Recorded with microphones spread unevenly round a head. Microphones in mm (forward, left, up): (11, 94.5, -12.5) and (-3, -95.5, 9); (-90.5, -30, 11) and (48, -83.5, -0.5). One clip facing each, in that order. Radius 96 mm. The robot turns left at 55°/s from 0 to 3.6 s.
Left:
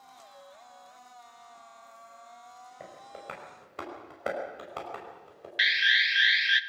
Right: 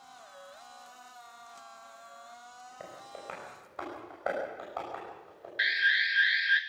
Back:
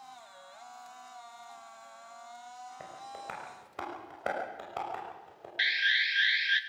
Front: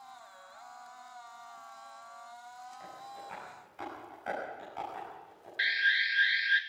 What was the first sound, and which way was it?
Tapping, straight behind.